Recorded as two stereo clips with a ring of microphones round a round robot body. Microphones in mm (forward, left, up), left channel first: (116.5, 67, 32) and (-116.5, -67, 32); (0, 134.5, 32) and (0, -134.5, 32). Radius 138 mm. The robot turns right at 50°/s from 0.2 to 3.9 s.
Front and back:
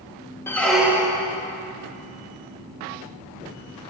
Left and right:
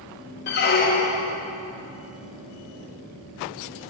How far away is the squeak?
About 0.6 m.